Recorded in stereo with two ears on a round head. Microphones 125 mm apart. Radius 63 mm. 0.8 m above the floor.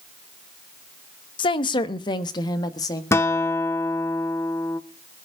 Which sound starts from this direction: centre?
A guitar, at 3.1 s.